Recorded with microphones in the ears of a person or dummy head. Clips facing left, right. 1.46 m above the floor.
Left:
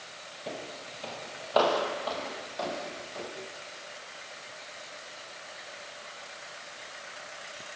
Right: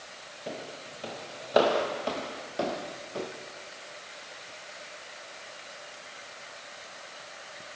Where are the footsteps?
Centre (ahead or behind), 2.5 m; by 3.3 s 35° right (ahead or behind), 4 m.